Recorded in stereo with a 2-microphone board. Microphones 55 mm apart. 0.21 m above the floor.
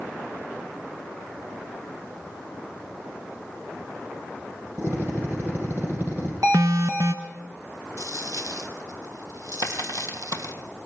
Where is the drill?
40° right (ahead or behind), 7.5 m.